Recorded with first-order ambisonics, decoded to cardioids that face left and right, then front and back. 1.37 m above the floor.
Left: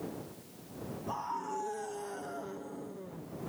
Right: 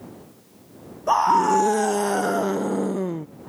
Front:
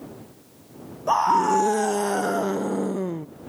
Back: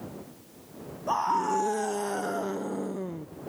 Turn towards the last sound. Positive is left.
turn(degrees=-65)